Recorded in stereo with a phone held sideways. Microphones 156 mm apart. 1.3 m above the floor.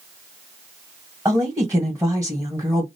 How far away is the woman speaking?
About 1.3 m.